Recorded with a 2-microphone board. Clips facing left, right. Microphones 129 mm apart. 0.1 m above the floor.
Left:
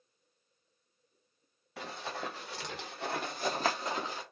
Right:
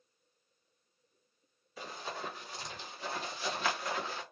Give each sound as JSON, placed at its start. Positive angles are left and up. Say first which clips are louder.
{"t": 1.8, "sound": "running footsteps", "louder": "left 2 dB", "side_deg": 75, "distance_m": 1.8}